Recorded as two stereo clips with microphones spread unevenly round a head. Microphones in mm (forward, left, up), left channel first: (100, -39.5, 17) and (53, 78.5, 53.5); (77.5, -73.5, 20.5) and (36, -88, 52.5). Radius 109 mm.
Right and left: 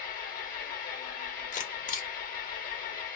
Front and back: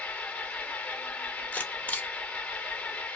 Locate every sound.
0.0 s an engine running: 55° right, 1.0 m
1.5 s a camera shutter: 50° right, 0.9 m